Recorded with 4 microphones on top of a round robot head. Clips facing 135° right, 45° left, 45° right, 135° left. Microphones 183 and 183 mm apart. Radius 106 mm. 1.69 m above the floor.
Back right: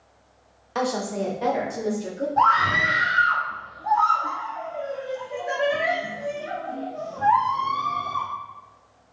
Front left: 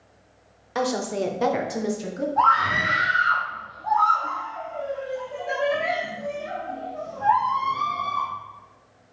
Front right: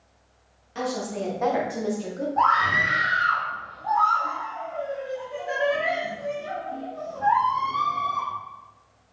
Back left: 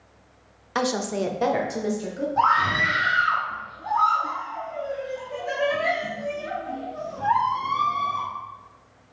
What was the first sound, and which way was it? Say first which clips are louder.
A woman speaking: front left 1 dB, back left 4 dB; 130° left.